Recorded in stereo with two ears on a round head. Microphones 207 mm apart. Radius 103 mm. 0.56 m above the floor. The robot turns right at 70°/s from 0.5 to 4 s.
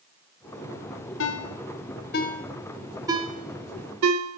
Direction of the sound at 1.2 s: 60° left (ahead or behind).